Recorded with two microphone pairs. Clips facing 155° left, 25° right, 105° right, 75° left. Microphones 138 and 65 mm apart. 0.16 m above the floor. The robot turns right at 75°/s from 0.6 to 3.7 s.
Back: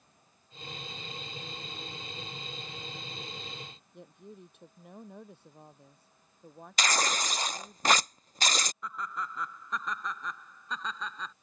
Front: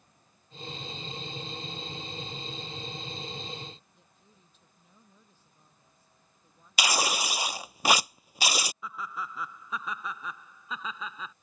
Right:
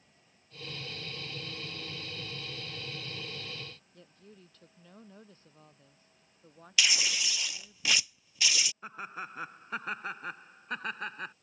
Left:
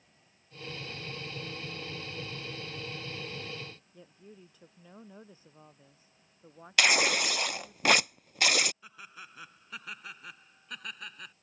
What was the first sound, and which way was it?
A woman speaking, 150° left.